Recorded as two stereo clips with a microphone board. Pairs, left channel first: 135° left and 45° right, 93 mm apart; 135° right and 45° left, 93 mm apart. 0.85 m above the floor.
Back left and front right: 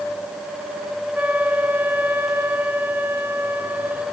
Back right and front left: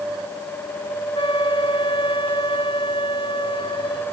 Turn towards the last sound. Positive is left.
turn(degrees=-115)